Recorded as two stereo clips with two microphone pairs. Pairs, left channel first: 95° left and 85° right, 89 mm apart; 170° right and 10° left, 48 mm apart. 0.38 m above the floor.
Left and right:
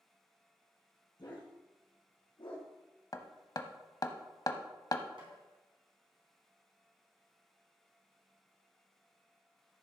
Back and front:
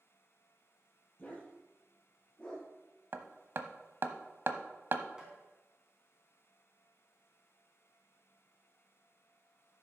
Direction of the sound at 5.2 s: 65° right.